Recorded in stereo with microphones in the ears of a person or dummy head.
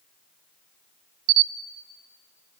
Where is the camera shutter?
45° right (ahead or behind), 0.9 m.